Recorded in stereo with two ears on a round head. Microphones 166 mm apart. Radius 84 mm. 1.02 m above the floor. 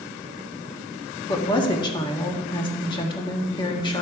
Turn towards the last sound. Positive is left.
turn(degrees=25)  # may be behind; listen again after turning